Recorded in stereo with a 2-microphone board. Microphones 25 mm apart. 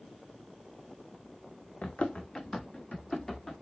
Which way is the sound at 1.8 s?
65° left (ahead or behind).